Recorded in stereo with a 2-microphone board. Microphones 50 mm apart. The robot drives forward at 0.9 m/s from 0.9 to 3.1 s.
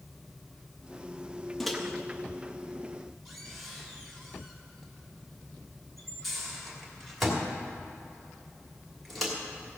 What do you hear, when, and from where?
1.6 s a microwave: 5° left (ahead or behind), 1.0 m; by 9.3 s centre (ahead or behind), 2.5 m